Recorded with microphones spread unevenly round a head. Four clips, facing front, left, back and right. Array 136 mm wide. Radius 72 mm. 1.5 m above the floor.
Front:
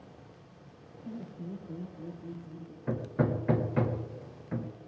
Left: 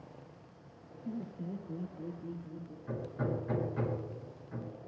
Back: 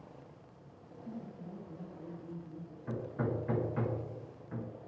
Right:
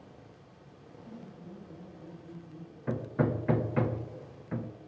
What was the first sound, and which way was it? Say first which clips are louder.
Laughter: left 8 dB, front 4 dB; 55° left.